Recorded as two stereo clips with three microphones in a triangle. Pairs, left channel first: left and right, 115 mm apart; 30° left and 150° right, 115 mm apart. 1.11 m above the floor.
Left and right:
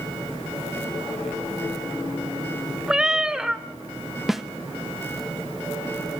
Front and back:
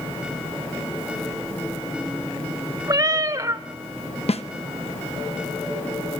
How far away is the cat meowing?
About 0.8 m.